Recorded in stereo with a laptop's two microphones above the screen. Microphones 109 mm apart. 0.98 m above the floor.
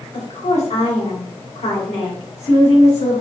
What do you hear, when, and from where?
0.1 s a woman speaking: 75° left (ahead or behind), 2 m